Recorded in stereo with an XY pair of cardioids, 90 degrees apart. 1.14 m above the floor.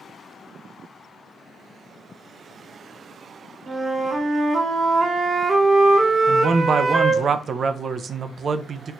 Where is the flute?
45° right, 1.1 m.